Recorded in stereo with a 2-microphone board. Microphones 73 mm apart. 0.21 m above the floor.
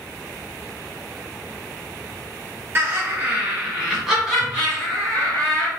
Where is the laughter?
35° right (ahead or behind), 1.2 m; by 5.7 s 10° left (ahead or behind), 2 m.